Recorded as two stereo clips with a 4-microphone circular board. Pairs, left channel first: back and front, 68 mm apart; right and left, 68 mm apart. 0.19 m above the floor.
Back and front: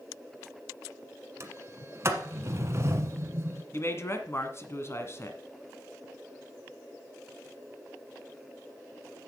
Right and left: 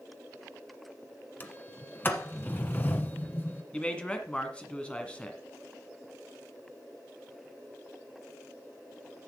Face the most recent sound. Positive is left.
turn(degrees=-155)